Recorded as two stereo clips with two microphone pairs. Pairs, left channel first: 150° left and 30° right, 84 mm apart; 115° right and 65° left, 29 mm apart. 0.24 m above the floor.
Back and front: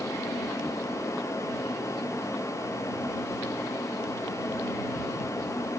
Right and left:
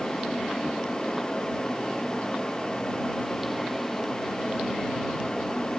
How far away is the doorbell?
No doorbell in this recording.